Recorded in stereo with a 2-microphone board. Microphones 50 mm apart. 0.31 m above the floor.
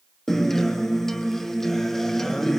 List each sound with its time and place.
0.3 s a guitar: 5° left (ahead or behind), 1.1 m